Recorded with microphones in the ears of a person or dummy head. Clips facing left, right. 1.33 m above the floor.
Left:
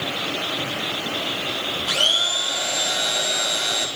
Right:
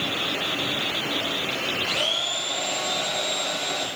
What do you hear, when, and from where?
1.9 s a blender: 10° left (ahead or behind), 2.5 m